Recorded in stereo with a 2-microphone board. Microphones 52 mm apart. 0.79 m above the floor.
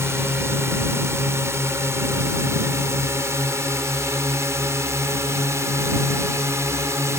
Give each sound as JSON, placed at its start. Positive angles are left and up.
{"t": 0.0, "sound": "a drone", "side_deg": -55}